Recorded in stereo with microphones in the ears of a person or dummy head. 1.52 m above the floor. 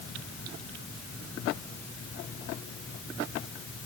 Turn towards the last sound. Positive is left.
No sound to turn to.